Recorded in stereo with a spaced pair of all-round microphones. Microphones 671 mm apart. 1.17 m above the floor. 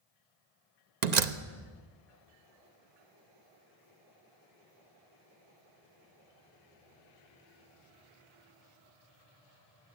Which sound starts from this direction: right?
A door slam, at 1.0 s.